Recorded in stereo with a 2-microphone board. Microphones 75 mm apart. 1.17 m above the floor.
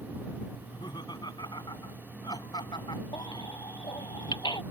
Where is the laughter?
65° left (ahead or behind).